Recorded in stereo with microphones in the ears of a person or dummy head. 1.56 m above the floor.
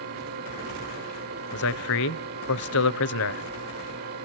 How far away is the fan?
About 4.5 m.